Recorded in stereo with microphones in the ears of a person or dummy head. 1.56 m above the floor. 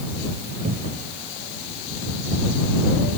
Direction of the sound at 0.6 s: 45° right (ahead or behind).